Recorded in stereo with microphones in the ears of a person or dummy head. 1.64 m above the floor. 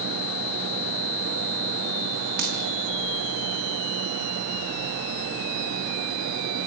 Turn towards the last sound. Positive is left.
turn(degrees=-60)  # may be behind; listen again after turning